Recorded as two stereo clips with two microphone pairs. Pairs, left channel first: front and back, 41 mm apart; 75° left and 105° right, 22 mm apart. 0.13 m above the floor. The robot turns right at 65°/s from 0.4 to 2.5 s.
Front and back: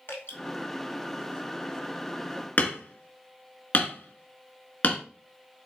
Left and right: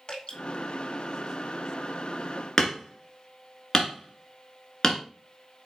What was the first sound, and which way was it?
Dripping, 25° left.